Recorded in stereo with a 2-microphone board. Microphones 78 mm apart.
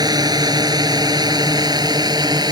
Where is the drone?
55° right (ahead or behind); by 2.5 s 60° right (ahead or behind).